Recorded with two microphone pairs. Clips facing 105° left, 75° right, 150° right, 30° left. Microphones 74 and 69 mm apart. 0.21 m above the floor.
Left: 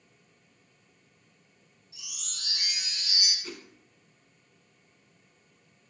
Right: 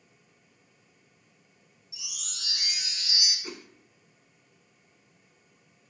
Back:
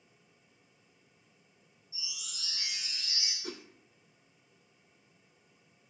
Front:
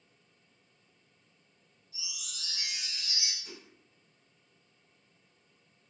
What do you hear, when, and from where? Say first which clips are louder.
1.9 s a chime: right 1 dB, even; 55° left, 2 m
3.4 s a whoosh: right 1 dB, back 7 dB; 150° right, 0.5 m